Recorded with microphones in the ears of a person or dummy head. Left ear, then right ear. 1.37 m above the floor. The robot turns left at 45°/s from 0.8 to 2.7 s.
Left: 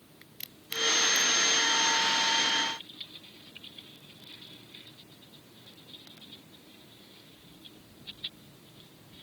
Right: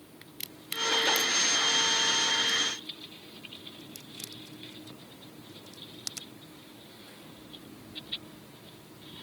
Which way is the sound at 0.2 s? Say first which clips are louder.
Right 3 dB; 5° right (ahead or behind).